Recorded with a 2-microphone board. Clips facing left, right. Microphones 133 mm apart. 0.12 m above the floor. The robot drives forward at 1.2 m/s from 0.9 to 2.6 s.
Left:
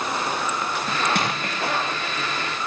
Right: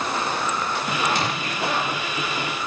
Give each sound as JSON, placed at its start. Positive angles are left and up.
{"t": 1.1, "sound": "crushing", "side_deg": 55, "distance_m": 6.5}